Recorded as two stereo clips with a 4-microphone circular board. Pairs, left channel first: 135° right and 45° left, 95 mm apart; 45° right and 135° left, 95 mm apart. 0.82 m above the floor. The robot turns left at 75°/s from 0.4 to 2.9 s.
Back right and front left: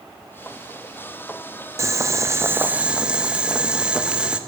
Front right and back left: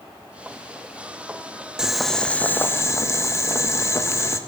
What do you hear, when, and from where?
1.8 s boiling: 60° left, 0.6 m; by 4.4 s 25° right, 0.6 m